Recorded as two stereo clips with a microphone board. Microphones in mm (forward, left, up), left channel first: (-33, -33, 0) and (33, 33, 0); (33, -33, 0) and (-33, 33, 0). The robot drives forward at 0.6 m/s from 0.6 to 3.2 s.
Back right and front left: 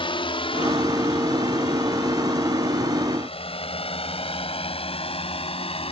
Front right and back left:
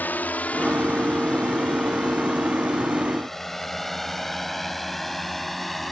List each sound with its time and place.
0.0 s a drone: 115° right; by 5.9 s 135° right